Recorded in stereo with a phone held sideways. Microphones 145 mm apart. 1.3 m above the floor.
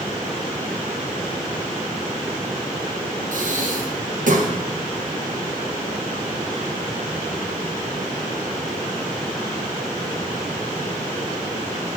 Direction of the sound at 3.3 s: 65° right (ahead or behind).